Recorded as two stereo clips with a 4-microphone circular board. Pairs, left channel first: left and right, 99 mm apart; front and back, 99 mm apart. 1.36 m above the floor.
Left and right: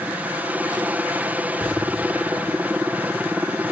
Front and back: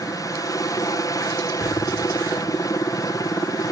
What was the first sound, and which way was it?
A helicopter, 25° right.